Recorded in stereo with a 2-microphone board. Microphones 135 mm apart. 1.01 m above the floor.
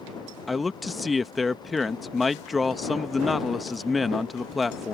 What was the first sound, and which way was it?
A man speaking, centre (ahead or behind).